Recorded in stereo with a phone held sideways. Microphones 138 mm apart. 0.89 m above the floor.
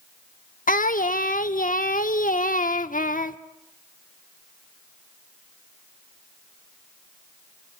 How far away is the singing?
About 0.9 m.